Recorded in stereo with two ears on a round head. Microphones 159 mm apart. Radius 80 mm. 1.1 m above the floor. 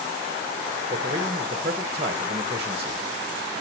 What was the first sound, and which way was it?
A man speaking, 30° right (ahead or behind).